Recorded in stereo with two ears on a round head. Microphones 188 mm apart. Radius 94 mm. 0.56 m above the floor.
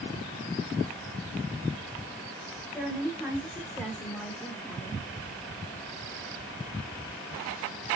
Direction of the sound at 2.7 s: Centre (ahead or behind).